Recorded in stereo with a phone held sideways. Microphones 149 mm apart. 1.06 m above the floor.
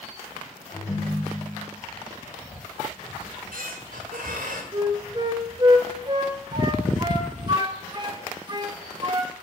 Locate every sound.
0.7 s a ringtone: 25° left (ahead or behind), 2.5 m
3.2 s a squeak: 75° right (ahead or behind), 1.7 m
4.7 s a flute: 30° right (ahead or behind), 0.8 m